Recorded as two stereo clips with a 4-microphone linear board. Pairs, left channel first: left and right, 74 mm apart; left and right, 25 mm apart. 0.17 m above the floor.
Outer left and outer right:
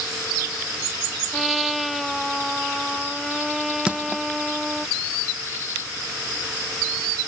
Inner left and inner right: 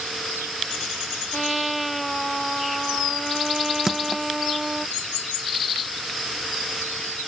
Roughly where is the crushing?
Centre.